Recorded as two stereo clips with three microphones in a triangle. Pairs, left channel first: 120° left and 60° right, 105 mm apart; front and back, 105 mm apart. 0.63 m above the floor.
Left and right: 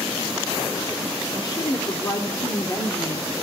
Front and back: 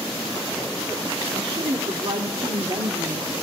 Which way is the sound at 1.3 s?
165° left.